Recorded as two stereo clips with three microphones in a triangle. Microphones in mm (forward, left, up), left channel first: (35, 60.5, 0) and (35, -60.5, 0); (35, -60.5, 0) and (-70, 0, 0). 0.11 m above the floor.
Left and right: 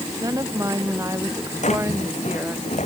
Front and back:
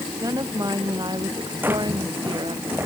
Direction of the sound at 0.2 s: 150° right.